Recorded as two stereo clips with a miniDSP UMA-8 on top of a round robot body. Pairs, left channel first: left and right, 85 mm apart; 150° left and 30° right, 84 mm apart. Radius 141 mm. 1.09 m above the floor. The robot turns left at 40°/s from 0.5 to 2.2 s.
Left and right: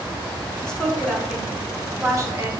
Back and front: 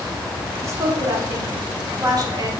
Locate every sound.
0.6 s a woman speaking: 15° left, 0.8 m; by 2.5 s 50° right, 0.8 m